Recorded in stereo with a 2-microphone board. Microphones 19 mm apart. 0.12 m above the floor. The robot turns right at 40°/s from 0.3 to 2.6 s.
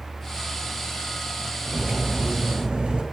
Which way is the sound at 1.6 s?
155° right.